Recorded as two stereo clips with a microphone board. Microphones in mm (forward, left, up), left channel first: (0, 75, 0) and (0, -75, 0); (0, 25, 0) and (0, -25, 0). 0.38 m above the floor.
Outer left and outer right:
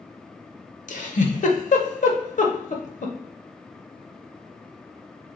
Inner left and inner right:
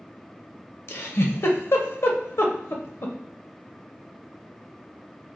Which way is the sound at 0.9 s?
55° left (ahead or behind).